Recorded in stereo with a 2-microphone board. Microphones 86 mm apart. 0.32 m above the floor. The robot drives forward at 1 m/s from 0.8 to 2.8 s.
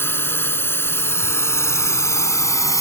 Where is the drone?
25° left (ahead or behind); by 2.8 s 40° left (ahead or behind).